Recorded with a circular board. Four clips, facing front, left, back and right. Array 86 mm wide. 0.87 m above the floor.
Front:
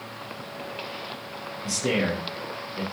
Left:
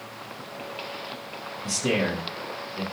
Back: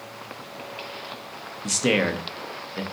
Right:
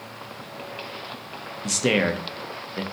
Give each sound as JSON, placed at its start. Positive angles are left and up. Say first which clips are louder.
{"t": 1.6, "sound": "a man speaking", "louder": "right 3 dB, back 3 dB", "azimuth_deg": -135, "distance_m": 0.6}